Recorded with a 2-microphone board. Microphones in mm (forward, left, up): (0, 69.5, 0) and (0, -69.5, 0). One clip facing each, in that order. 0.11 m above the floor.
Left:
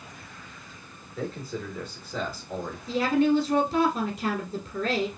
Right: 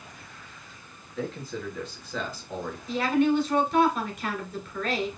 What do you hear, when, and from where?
1.2 s a man speaking: 10° left (ahead or behind), 1.7 m
2.9 s a woman speaking: 35° left (ahead or behind), 1.4 m